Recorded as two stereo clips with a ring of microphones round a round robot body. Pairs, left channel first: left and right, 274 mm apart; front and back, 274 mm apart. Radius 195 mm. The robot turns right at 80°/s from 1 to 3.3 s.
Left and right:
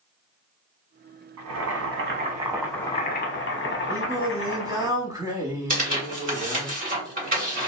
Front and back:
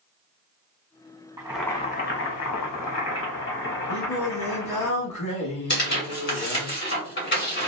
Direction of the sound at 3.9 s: 10° right.